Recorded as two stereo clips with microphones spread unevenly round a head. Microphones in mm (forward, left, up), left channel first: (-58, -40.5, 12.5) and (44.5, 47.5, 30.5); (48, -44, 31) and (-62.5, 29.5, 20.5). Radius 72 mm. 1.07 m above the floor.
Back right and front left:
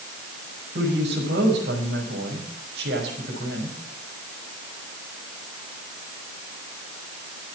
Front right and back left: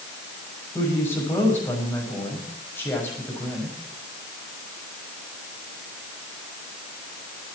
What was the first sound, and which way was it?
A woman speaking, 40° left.